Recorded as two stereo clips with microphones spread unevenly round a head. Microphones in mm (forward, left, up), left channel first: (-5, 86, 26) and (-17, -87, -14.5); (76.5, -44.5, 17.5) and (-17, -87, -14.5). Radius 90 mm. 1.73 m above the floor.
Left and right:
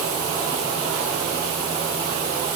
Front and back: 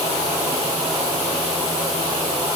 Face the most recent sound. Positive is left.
No sound to turn to.